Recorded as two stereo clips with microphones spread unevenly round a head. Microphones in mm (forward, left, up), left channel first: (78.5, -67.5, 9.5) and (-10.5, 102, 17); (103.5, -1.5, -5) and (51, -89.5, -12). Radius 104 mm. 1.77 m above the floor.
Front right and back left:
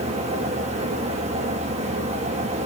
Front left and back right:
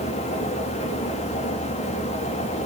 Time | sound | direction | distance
0.0 | a fan | 60° left | 2.5 m